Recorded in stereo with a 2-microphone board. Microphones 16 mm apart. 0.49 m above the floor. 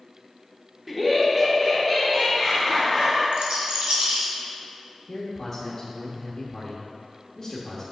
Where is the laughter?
15° right (ahead or behind), 1.4 m; by 3.2 s 5° left (ahead or behind), 2.5 m.